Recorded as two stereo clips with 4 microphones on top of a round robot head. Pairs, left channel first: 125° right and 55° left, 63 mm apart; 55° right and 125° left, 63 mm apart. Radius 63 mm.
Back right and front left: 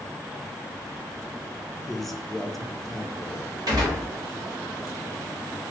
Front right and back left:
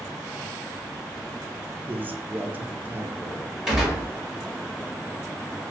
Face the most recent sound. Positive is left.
turn(degrees=45)